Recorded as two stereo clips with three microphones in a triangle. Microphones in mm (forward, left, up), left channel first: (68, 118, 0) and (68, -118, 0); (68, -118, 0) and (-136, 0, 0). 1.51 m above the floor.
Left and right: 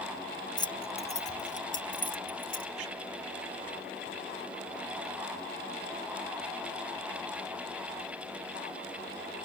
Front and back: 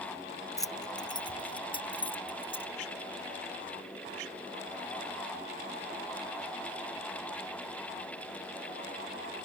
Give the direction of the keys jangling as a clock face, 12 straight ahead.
11 o'clock.